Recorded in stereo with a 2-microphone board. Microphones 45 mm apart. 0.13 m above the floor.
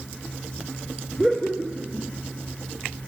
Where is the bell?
No bell in this recording.